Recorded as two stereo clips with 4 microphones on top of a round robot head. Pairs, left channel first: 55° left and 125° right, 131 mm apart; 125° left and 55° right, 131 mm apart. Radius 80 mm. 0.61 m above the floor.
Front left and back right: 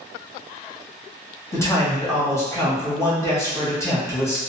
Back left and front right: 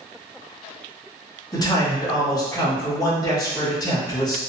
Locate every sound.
1.5 s a man speaking: 105° left, 1.3 m